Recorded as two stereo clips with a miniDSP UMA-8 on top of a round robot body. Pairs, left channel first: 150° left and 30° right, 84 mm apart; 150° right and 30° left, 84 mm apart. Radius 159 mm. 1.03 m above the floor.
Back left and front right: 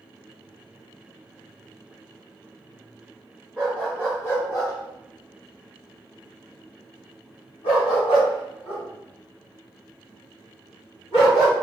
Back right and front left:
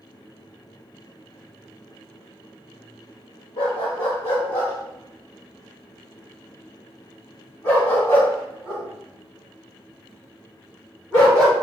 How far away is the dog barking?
About 1.3 m.